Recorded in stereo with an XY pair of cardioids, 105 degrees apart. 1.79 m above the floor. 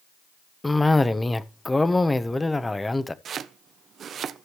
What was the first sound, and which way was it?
A cough, 15° left.